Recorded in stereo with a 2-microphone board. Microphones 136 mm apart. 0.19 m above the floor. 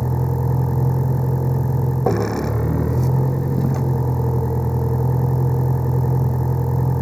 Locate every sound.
0.0 s a vehicle: centre (ahead or behind)